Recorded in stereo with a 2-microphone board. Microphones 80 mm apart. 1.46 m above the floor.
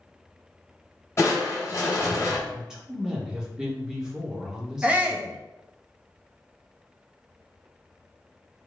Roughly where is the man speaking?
Centre.